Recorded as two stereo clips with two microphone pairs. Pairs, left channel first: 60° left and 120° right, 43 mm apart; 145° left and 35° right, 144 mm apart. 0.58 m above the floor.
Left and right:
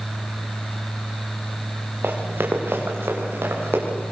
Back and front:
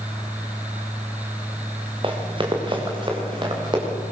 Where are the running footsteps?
85° right, 4.5 m; by 3.8 s 90° right, 6.5 m.